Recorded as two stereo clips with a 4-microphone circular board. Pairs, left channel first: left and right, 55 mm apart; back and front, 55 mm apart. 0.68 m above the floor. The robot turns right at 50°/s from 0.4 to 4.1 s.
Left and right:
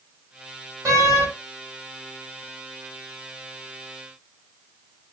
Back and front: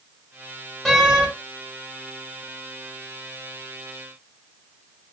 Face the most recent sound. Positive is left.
turn(degrees=70)